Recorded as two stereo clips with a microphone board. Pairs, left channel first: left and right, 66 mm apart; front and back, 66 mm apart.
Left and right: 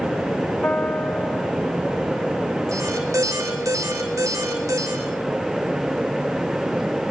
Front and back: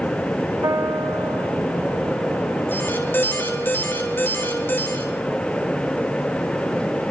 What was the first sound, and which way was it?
A piano, 150° left.